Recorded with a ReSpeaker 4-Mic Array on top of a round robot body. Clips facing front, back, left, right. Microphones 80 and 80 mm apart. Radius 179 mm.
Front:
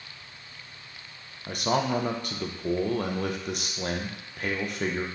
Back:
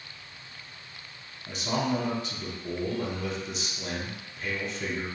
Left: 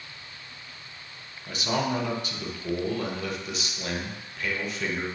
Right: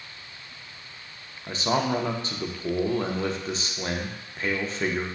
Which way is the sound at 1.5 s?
35° right.